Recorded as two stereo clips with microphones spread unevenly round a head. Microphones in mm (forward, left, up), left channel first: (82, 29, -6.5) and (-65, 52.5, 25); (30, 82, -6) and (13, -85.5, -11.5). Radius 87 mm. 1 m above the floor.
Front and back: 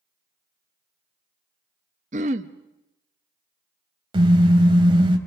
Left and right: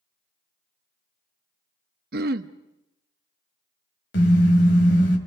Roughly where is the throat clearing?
Behind right.